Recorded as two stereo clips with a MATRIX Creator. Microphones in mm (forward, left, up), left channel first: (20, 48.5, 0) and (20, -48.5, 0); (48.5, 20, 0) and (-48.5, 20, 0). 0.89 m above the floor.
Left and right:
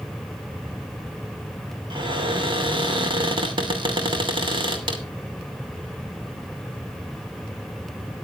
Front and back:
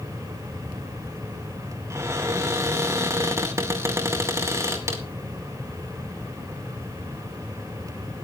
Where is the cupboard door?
120° right, 2.5 m.